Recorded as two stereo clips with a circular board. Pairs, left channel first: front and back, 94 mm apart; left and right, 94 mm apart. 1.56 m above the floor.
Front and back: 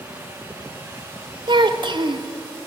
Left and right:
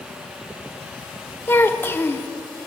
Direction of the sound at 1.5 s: 155° left.